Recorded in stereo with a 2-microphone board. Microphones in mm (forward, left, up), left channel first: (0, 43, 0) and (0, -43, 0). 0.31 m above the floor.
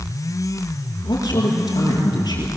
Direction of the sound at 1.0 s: 50° left (ahead or behind).